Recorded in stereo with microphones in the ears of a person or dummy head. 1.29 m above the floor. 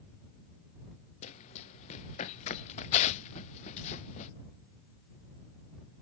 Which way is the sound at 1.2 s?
35° left (ahead or behind).